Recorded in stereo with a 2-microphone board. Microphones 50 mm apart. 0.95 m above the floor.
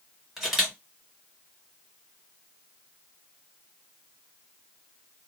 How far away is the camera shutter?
About 1.3 m.